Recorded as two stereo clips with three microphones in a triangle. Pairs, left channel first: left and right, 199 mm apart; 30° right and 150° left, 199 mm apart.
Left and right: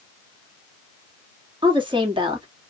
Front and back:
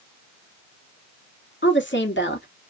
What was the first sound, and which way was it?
A woman speaking, 25° right.